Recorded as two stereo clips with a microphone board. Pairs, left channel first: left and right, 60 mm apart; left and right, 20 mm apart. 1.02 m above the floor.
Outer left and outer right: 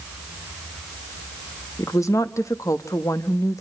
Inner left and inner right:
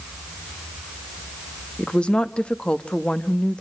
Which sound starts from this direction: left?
A woman speaking, at 1.8 s.